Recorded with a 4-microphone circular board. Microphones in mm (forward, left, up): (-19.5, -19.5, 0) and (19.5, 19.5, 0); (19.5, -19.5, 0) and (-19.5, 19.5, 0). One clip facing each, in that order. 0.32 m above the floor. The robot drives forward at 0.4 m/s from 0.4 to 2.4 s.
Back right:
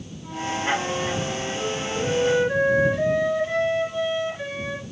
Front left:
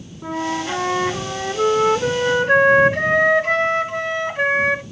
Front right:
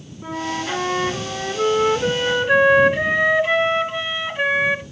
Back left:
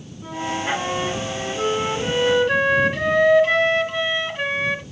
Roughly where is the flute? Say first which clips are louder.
Front left 3 dB, even; ahead left.